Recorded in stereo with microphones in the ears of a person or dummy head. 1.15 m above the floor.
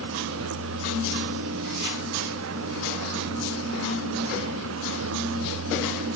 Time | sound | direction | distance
0.0 | a vehicle | 70° right (ahead or behind) | ?